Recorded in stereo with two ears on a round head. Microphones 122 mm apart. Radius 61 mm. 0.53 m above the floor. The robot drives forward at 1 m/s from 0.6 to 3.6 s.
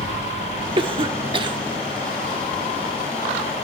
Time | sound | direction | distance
0.8 | a cough | 35° right (ahead or behind) | 1.1 m